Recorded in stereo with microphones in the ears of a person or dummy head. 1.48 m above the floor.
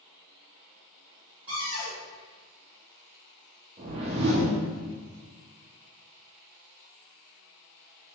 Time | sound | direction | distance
1.5 | a cupboard door | 5° right (ahead or behind) | 1.5 m
3.8 | a whoosh | 30° right (ahead or behind) | 0.6 m